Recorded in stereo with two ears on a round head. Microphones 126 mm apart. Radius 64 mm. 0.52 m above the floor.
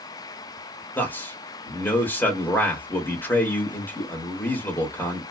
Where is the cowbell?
I don't hear a cowbell.